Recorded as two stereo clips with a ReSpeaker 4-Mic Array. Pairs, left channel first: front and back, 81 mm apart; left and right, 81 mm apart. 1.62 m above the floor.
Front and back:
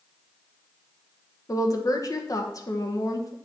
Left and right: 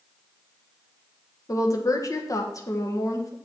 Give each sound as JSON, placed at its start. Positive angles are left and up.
{"t": 1.5, "sound": "a woman speaking", "azimuth_deg": 45, "distance_m": 1.3}